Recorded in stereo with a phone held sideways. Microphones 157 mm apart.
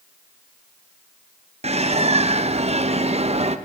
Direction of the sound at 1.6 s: 40° right (ahead or behind).